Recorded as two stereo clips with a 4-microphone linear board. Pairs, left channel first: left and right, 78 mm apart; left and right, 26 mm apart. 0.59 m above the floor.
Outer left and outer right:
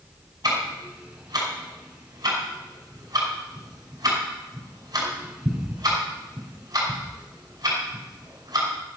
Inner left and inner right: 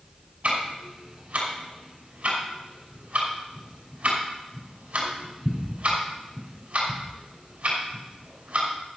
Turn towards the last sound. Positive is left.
turn(degrees=-50)  # may be behind; listen again after turning